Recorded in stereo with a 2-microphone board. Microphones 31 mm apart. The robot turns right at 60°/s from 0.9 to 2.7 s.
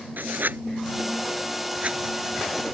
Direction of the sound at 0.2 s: 80° right.